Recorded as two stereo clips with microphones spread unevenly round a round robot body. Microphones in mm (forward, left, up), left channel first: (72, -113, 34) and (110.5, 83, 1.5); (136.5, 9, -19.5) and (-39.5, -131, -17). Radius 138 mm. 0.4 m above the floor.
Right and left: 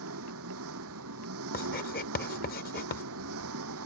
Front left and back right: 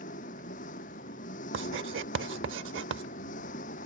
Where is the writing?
145° right.